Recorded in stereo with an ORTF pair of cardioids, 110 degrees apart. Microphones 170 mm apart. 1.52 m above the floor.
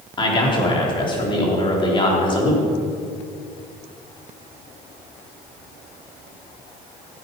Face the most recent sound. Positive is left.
turn(degrees=30)